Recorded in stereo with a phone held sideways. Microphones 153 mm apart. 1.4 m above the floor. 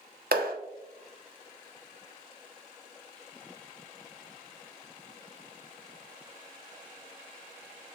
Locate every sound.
0.3 s a clap: 85° right, 1.0 m